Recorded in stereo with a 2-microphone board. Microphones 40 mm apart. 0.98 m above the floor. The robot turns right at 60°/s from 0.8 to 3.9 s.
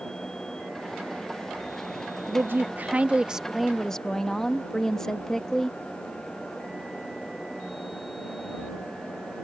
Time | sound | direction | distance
2.3 | a woman speaking | 85° right | ?